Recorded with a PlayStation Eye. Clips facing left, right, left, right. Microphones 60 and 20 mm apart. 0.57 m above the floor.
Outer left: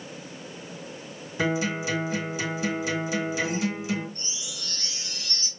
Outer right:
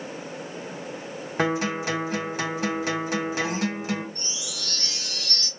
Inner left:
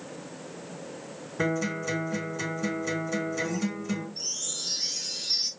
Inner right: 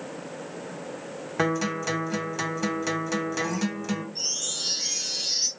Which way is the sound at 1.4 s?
60° right (ahead or behind).